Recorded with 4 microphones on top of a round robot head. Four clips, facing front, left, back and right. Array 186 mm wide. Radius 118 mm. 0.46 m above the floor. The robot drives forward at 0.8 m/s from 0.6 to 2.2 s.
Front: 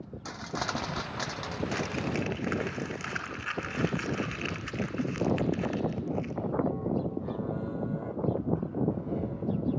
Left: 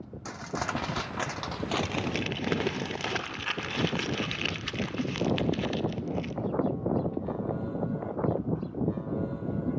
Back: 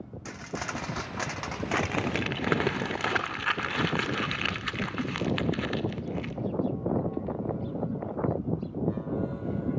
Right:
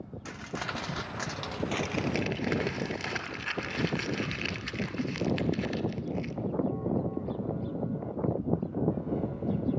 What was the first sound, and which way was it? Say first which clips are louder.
Crumpling: left 4 dB, front 2 dB; 55° left.